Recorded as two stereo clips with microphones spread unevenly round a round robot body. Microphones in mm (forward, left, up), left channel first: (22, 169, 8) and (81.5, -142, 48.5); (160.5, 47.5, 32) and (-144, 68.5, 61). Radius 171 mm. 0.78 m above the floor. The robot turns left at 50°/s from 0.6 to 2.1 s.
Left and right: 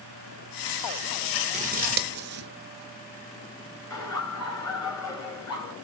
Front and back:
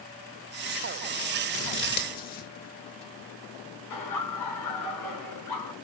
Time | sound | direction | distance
1.5 | scissors | 35° right | 0.5 m
3.9 | laughter | 20° left | 4.5 m